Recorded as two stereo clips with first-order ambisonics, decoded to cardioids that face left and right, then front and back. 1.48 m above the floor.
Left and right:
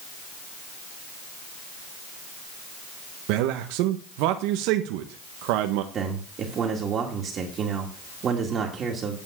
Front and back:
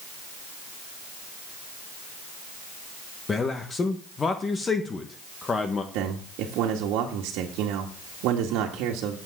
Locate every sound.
3.3 s a man speaking: 75° right, 1.3 m
5.9 s a man speaking: 150° right, 2 m